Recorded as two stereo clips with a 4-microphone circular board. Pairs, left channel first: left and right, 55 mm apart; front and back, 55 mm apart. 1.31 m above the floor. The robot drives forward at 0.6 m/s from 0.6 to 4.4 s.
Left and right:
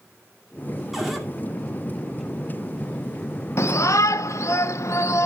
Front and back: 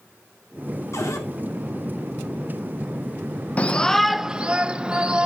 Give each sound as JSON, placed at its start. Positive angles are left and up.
{"t": 0.9, "sound": "a cupboard door", "azimuth_deg": 0, "distance_m": 2.5}
{"t": 3.6, "sound": "a shout", "azimuth_deg": 65, "distance_m": 0.7}